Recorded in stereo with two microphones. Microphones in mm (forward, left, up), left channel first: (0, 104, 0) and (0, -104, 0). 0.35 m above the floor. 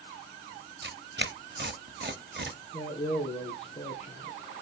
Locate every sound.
0.8 s tearing paper: 55° right (ahead or behind), 0.9 m
2.7 s a man speaking: 30° left (ahead or behind), 4 m